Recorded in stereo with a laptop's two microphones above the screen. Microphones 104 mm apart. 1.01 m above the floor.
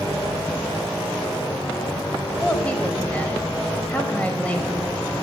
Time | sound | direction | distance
2.4 | a woman speaking | 15° left (ahead or behind) | 5 m